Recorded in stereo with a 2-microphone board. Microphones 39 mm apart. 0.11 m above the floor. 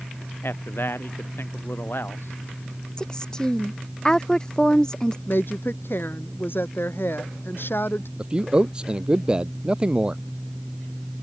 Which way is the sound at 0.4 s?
75° left (ahead or behind).